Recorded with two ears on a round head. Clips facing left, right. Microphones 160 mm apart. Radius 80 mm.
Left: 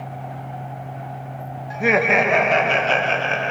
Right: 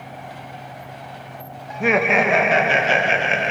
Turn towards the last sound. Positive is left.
turn(degrees=-25)  # may be behind; listen again after turning